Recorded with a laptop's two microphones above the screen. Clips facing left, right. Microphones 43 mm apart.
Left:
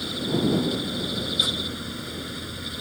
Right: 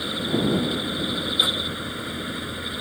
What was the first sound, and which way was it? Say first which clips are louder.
A fan: right 1 dB; 20° right (ahead or behind).